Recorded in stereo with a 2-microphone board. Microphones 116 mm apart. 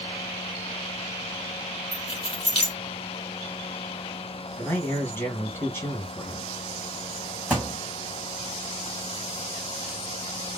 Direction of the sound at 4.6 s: 20° left (ahead or behind).